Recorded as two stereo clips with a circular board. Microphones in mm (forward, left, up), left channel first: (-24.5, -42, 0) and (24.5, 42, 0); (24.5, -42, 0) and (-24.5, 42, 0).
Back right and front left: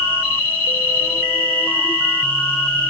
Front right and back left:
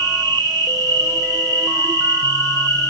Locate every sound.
0.0 s an insect: 170° left, 5 m